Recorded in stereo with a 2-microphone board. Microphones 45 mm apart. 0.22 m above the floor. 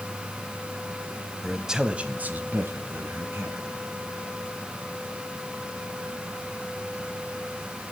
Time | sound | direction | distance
1.4 | a man speaking | centre (ahead or behind) | 1.1 m